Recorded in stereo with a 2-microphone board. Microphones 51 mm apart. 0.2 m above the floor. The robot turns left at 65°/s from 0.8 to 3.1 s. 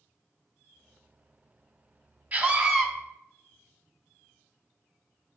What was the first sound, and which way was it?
A scream, 125° right.